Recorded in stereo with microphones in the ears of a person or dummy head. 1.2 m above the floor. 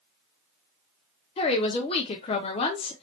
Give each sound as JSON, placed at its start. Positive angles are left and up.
{"t": 1.4, "sound": "a woman speaking", "side_deg": 25, "distance_m": 0.5}